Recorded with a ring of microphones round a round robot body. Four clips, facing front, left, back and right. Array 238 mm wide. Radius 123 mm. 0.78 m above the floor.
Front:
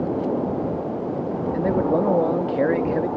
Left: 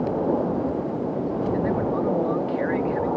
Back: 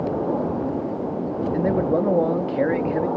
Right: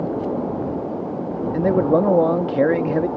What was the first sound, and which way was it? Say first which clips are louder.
A man speaking: right 11 dB, even; 95° right.